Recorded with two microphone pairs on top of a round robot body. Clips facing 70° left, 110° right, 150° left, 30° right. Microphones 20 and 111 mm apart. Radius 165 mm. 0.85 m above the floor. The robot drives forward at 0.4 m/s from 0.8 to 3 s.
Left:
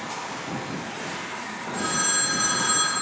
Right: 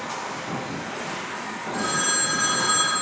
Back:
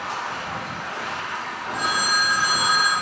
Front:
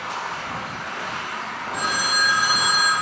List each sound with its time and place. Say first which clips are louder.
0.0 s running water: right 1 dB, even; 170° left, 1.2 m; by 3.0 s 175° left, 2 m
1.7 s a phone ringing: right 1 dB, back 1 dB; 65° right, 1.6 m; by 2.9 s 85° right, 1.5 m